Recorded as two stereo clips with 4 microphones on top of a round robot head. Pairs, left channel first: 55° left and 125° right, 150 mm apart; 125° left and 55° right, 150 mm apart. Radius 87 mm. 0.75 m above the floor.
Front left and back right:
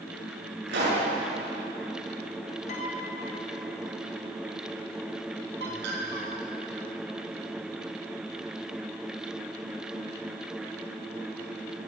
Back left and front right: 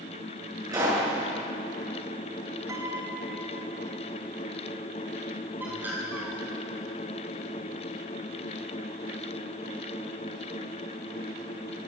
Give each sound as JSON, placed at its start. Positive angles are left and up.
{"t": 0.7, "sound": "a pop", "azimuth_deg": -125, "distance_m": 8.5}
{"t": 2.7, "sound": "a piano", "azimuth_deg": 15, "distance_m": 3.0}
{"t": 5.6, "sound": "a bird", "azimuth_deg": -135, "distance_m": 4.5}